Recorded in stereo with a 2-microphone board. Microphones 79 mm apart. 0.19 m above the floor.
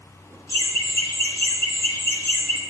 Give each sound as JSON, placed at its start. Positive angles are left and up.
{"t": 0.5, "sound": "laughter", "side_deg": 35, "distance_m": 1.9}